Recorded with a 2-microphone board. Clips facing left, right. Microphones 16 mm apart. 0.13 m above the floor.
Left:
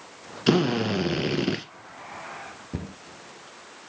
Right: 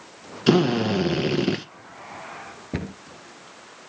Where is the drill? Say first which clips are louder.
Right 3 dB; centre (ahead or behind), 1.3 m.